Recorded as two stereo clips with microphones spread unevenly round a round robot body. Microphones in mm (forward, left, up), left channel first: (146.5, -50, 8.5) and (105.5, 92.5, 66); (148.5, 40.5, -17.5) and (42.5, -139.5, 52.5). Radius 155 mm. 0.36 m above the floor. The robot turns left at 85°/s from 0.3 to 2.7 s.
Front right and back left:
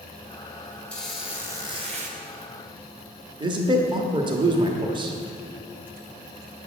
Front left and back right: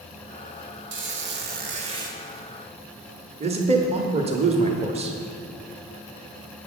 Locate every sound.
0.9 s a squeak: 110° right, 1.0 m; by 2.2 s 140° left, 1.0 m
3.4 s a man speaking: 175° left, 0.9 m